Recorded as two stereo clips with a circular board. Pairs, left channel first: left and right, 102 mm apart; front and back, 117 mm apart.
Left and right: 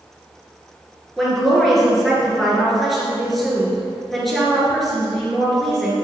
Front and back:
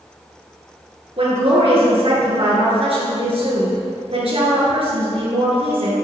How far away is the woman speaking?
About 3 m.